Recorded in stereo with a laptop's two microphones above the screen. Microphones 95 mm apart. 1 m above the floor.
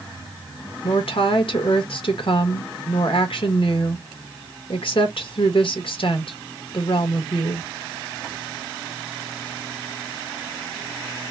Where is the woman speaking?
65° left (ahead or behind), 1.2 m.